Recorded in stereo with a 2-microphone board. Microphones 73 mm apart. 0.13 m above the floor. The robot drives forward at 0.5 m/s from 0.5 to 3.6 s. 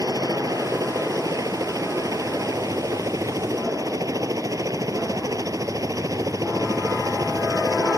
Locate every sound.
0.0 s a helicopter: 50° right (ahead or behind)